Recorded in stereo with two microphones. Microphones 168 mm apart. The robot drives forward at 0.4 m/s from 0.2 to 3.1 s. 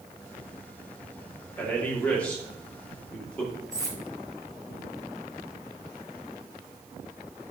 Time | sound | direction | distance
1.6 | a man speaking | 10° left (ahead or behind) | 2.5 m
3.7 | cutlery clinking | 20° right (ahead or behind) | 2 m